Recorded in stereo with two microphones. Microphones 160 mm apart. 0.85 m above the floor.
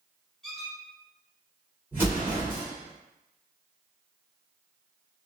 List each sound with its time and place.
0.4 s a squeak: 5° left (ahead or behind), 1.4 m
1.9 s an explosion: 15° right (ahead or behind), 1.8 m